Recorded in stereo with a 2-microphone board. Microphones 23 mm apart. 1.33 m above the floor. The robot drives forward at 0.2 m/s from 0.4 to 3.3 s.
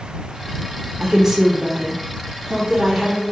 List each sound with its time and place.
1.0 s a woman speaking: 30° right (ahead or behind), 0.5 m; by 3.2 s 15° right (ahead or behind), 0.9 m